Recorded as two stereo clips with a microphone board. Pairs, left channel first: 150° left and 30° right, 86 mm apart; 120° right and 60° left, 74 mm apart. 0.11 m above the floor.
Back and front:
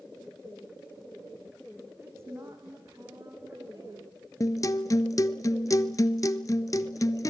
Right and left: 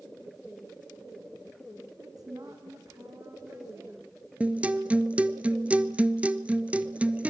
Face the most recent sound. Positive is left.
turn(degrees=125)